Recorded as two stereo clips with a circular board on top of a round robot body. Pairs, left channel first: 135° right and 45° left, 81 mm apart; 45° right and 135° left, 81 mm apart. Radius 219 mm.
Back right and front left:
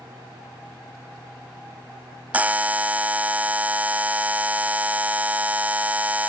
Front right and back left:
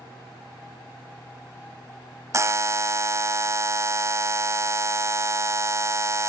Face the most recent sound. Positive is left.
turn(degrees=105)